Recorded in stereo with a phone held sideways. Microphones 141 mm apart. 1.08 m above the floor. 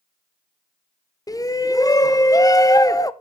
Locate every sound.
1.3 s a shout: 25° left (ahead or behind), 0.6 m